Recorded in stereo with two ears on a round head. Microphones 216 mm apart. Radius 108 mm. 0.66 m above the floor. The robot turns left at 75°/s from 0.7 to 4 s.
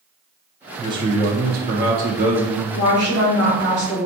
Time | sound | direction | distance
0.8 | a man speaking | 20° right | 0.6 m
2.7 | a woman speaking | 105° left | 1.7 m